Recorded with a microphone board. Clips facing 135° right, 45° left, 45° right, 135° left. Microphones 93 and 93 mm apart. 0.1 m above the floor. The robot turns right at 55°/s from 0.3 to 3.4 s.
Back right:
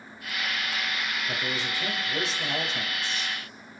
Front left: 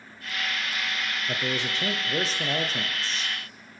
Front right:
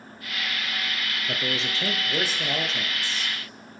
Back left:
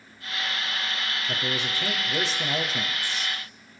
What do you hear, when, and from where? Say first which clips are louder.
1.3 s a man speaking: front left 2 dB, front right 1 dB; 25° right, 1.4 m; by 3.8 s 90° left, 1.4 m